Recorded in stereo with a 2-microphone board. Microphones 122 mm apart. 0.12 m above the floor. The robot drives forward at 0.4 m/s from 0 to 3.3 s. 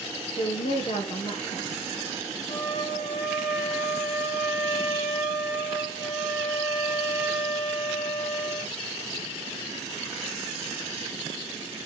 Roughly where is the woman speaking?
Left.